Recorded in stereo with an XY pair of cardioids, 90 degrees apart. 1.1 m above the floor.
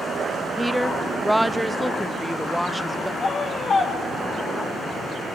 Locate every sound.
0.6 s a woman speaking: 5° left, 0.7 m
3.2 s a scream: 60° left, 1.5 m